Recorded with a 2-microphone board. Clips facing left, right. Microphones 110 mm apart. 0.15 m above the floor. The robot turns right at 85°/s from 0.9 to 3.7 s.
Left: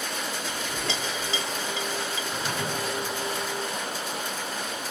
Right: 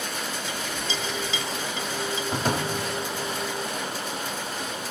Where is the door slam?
145° right, 5.5 m; by 2.8 s 110° right, 5.5 m.